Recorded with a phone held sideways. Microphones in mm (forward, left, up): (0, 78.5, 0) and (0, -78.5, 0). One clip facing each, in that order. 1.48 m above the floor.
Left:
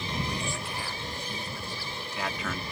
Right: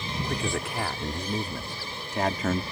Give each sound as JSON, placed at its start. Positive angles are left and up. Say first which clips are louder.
{"t": 0.2, "sound": "a man speaking", "louder": "right 4 dB", "side_deg": -75}